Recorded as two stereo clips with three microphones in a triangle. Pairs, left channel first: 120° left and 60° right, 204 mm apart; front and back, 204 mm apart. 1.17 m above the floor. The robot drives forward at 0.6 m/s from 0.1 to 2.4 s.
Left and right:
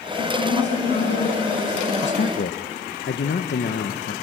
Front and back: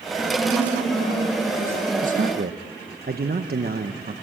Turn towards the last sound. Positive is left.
turn(degrees=145)